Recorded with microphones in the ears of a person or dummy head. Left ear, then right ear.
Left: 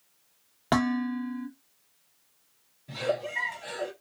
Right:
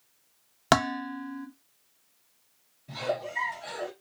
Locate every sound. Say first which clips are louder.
0.7 s dishes clattering: right 3 dB; 40° right (ahead or behind), 0.7 m
2.9 s a giggle: left 1 dB; 5° left (ahead or behind), 1.7 m